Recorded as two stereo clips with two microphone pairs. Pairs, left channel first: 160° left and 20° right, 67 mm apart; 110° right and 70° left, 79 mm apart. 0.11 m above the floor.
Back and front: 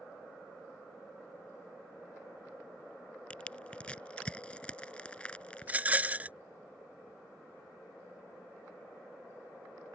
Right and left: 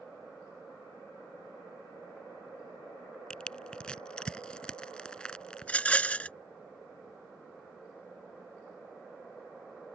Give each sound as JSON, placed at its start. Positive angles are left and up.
{"t": 3.3, "sound": "crushing", "azimuth_deg": -155}
{"t": 5.6, "sound": "a rattle", "azimuth_deg": -55}